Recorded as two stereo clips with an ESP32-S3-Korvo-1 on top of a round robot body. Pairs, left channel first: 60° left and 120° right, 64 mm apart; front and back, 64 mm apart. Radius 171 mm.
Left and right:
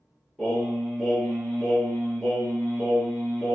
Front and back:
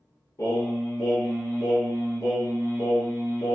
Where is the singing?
35° right, 1.5 m.